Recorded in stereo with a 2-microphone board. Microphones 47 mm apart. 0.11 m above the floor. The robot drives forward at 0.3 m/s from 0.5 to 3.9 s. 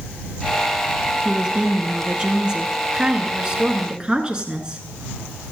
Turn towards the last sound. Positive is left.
turn(degrees=-20)  # may be behind; listen again after turning